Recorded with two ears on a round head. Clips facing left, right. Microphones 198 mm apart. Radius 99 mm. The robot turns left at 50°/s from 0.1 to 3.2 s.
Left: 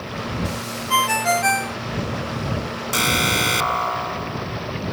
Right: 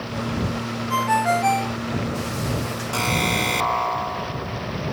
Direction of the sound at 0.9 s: 75° left.